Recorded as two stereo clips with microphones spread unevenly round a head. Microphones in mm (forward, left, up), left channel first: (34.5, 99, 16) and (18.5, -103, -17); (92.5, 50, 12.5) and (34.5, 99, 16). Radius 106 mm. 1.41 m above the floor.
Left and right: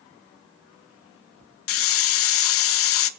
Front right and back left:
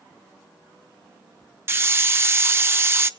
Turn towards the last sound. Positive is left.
turn(degrees=80)